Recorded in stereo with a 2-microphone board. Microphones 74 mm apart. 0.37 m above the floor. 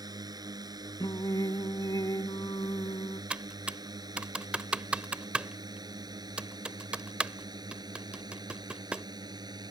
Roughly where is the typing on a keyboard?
Centre.